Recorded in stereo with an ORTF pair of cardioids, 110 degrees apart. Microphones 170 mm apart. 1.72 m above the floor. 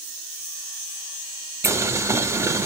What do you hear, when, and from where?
1.6 s boiling: 15° right, 0.6 m